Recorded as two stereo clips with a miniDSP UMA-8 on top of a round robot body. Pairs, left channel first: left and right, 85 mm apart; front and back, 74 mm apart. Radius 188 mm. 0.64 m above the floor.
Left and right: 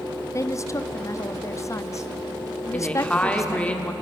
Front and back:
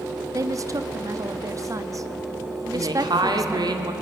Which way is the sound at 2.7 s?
165° left.